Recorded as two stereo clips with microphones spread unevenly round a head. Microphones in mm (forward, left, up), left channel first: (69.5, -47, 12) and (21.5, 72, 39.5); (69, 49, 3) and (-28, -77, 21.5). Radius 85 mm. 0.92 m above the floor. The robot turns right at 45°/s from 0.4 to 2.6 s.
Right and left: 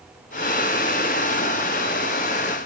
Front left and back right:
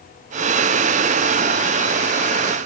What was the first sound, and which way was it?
Only background noise.